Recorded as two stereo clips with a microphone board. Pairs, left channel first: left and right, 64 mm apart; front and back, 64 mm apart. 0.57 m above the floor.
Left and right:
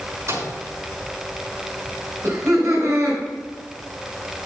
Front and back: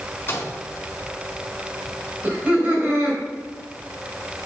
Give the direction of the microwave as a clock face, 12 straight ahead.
2 o'clock.